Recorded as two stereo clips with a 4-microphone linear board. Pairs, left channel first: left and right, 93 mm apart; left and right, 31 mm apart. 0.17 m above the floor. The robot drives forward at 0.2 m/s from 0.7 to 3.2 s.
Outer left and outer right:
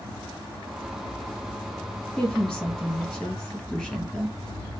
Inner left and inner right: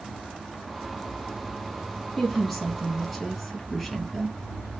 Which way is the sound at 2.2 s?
10° left (ahead or behind).